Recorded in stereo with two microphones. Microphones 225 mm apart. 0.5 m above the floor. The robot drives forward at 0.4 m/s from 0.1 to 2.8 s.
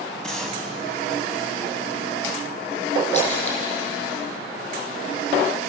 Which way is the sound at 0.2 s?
5° left (ahead or behind).